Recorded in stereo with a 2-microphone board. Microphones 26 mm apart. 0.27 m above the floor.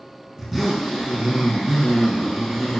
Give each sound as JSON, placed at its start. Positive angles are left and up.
{"t": 0.4, "sound": "a zipper", "side_deg": 0, "distance_m": 3.5}